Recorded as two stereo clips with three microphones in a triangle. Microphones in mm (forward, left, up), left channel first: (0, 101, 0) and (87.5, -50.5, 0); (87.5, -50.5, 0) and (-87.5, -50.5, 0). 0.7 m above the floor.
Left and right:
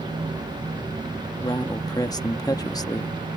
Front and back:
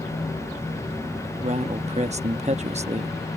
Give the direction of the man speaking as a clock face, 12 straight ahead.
6 o'clock.